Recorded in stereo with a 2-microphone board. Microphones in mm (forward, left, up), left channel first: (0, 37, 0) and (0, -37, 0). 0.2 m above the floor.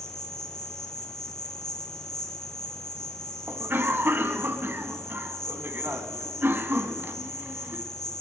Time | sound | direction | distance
0.0 | an insect | 60° left (ahead or behind) | 4 m
3.5 | a cough | 30° right (ahead or behind) | 2.0 m